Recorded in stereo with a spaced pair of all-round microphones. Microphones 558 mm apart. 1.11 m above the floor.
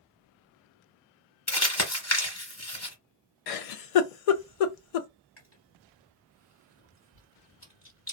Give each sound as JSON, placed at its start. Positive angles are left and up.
{"t": 1.5, "sound": "crumpling", "side_deg": 25, "distance_m": 1.0}
{"t": 3.5, "sound": "a giggle", "side_deg": 75, "distance_m": 0.5}
{"t": 5.4, "sound": "chewing", "side_deg": 20, "distance_m": 1.4}